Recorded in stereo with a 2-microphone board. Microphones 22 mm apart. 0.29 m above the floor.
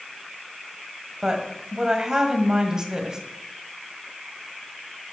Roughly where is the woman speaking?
Right.